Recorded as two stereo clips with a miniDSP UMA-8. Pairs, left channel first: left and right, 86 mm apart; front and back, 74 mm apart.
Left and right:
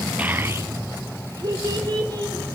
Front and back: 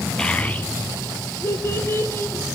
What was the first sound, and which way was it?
A child speaking, 50° right.